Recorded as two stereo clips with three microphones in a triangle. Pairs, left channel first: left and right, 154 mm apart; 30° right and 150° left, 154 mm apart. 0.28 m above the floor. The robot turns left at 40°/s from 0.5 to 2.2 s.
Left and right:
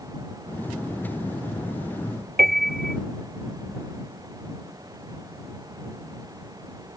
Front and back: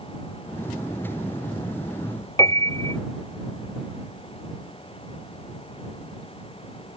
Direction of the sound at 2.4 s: 100° right.